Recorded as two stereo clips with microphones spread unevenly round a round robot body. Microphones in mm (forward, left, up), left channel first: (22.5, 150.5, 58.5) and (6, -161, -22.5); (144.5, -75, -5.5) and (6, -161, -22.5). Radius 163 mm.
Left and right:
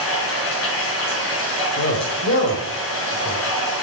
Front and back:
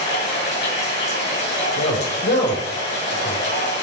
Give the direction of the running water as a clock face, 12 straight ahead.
11 o'clock.